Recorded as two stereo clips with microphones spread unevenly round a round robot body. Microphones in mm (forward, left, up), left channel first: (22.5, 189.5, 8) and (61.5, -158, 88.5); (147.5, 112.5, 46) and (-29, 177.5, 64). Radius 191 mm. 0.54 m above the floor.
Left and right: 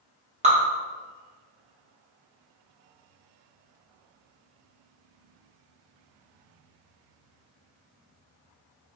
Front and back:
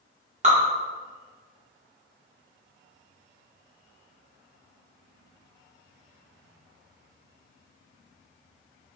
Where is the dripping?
160° right, 1.2 m.